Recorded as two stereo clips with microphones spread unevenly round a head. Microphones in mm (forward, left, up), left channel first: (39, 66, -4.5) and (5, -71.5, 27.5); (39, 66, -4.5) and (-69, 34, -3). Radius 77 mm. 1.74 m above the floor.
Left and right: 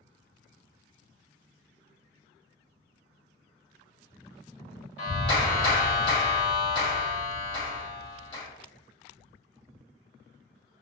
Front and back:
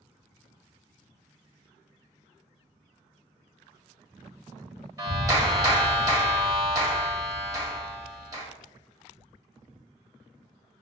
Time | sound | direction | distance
5.0 | a clap | 135° left | 1.6 m